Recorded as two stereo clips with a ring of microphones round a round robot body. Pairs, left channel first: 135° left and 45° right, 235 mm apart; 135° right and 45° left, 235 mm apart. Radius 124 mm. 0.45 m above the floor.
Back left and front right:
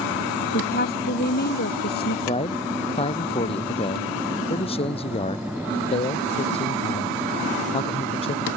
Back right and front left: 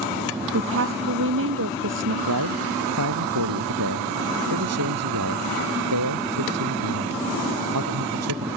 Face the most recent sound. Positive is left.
turn(degrees=70)